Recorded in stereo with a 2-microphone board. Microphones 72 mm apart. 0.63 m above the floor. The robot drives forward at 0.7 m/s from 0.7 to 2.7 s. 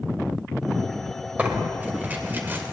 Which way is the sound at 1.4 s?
20° right (ahead or behind).